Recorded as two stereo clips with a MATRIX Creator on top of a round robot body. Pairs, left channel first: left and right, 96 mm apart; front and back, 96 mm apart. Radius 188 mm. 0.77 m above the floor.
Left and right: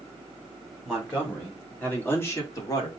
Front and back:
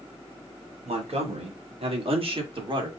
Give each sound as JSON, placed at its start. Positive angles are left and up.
{"t": 0.8, "sound": "a man speaking", "azimuth_deg": 175, "distance_m": 3.0}